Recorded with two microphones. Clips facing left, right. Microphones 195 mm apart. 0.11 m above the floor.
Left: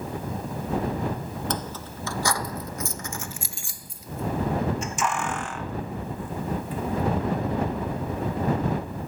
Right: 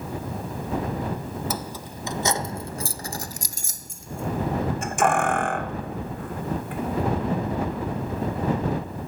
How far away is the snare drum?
I don't hear a snare drum.